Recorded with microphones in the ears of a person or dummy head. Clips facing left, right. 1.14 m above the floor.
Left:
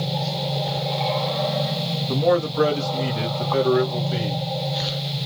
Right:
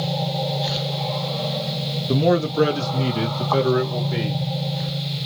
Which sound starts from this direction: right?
A man speaking, at 2.1 s.